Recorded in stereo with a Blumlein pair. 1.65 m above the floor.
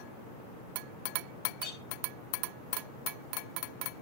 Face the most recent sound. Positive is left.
turn(degrees=25)